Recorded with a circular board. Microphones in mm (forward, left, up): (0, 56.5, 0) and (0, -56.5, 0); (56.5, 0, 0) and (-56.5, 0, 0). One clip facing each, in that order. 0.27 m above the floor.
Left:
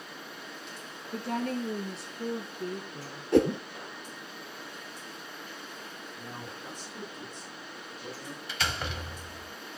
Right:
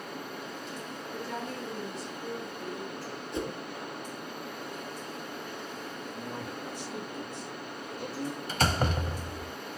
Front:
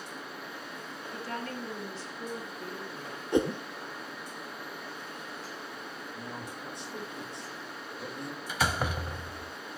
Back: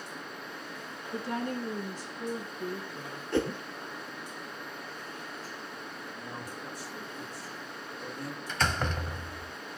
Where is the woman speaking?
110° left, 5 m; by 3.2 s 95° left, 5 m.